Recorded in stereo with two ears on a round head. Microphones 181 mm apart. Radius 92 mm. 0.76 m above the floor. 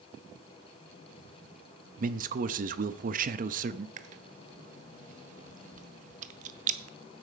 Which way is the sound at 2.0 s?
40° right (ahead or behind).